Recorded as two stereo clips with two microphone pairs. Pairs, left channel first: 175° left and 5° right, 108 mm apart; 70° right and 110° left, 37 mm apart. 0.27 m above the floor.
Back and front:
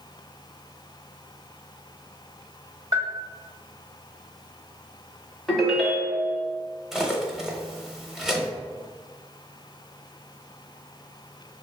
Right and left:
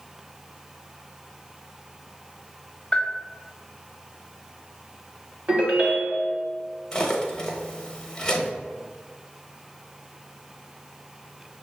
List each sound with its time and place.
2.9 s a bell: 15° right, 0.9 m
5.5 s a ringtone: 85° left, 1.2 m
6.9 s cutlery clinking: 75° right, 0.7 m